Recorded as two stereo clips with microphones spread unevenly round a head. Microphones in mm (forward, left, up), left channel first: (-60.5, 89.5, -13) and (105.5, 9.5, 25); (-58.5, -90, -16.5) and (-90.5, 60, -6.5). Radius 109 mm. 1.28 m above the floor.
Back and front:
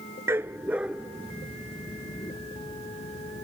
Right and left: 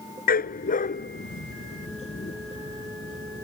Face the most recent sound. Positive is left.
turn(degrees=-140)